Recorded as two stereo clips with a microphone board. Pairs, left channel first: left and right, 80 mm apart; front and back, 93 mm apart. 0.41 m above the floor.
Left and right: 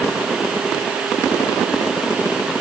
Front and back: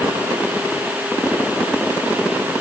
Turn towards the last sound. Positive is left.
No sound to turn to.